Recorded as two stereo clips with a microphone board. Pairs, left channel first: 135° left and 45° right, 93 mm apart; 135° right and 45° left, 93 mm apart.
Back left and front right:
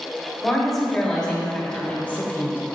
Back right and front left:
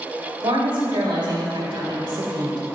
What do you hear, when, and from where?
0.4 s a woman speaking: 45° left, 3 m; by 2.6 s 70° left, 2.5 m